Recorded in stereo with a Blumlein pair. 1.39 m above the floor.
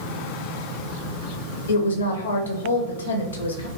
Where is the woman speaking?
70° left, 0.8 m.